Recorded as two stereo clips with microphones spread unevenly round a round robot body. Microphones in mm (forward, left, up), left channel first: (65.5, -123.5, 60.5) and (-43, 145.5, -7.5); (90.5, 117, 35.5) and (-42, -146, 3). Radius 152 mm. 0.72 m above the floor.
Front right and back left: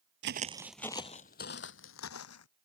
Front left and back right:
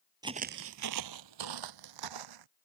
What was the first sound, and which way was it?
Footsteps, 165° left.